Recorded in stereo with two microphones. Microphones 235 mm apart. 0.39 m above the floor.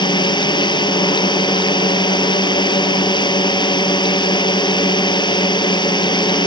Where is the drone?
15° left (ahead or behind).